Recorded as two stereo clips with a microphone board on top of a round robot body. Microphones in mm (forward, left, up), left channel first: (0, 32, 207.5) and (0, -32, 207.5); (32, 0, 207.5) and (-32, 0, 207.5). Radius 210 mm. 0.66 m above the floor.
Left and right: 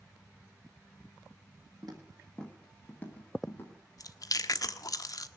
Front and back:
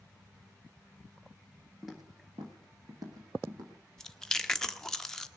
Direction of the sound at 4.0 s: 85° left.